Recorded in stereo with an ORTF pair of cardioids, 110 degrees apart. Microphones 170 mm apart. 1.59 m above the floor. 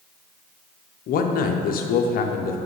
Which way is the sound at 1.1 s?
55° left.